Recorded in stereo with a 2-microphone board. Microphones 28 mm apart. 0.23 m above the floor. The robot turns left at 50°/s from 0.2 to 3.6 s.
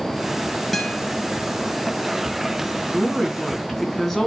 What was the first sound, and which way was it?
A guitar, 10° left (ahead or behind).